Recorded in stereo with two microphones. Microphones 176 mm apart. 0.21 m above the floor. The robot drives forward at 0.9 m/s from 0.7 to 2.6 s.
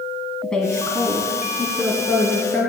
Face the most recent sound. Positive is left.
turn(degrees=0)  # may be behind; listen again after turning